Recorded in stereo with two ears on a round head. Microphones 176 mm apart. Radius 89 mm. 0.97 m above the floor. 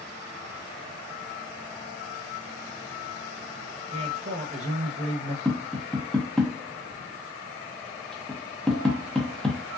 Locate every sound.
3.9 s a man speaking: 35° right (ahead or behind), 0.8 m
5.5 s tapping: 5° left (ahead or behind), 0.7 m